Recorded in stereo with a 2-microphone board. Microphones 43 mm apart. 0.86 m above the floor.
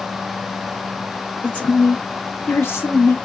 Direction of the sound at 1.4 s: 30° left (ahead or behind).